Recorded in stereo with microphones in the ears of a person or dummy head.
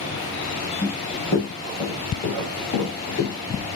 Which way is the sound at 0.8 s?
25° left (ahead or behind).